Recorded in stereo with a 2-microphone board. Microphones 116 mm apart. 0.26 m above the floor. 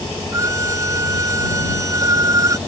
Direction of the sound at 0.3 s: 25° right (ahead or behind).